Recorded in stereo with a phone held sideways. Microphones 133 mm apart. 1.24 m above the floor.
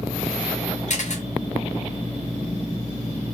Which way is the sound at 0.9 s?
60° left (ahead or behind).